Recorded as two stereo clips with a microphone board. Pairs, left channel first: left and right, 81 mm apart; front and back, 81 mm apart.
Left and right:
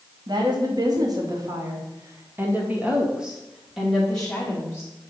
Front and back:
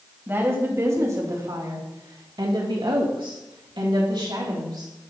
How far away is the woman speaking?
About 2.5 m.